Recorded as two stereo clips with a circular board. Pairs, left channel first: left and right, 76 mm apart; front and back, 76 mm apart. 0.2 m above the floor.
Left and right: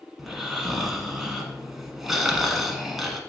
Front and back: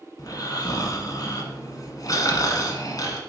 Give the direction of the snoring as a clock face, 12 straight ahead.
12 o'clock.